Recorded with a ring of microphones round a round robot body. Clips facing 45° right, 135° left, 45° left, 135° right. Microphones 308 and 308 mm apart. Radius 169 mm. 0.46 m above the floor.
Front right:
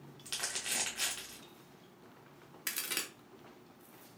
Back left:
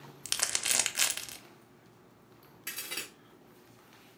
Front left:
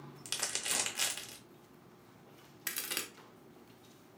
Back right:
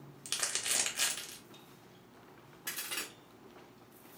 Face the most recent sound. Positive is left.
turn(degrees=10)